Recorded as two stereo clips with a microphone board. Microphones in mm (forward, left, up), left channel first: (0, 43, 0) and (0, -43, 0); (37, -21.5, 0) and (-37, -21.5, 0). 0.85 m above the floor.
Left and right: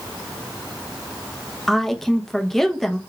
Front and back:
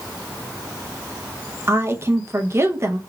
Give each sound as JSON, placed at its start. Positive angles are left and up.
{"t": 1.7, "sound": "a woman speaking", "azimuth_deg": 175, "distance_m": 0.6}